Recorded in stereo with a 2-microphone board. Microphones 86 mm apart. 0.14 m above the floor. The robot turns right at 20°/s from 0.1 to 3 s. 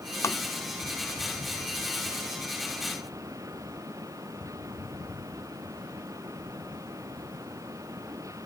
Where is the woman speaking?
No woman speaking in this recording.